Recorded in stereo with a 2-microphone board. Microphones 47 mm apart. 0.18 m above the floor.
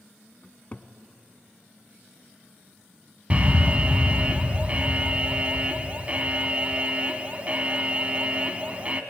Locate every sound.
0.4 s a cupboard door: 30° left (ahead or behind), 0.9 m
3.3 s an alarm: 30° right (ahead or behind), 0.9 m